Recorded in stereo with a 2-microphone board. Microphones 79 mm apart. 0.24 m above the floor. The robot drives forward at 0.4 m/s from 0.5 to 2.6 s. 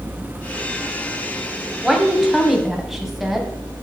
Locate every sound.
1.8 s a woman speaking: 5° right (ahead or behind), 1.0 m